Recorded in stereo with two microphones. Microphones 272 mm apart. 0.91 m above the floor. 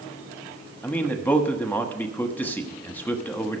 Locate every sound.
0.8 s a man speaking: 5° left (ahead or behind), 1.2 m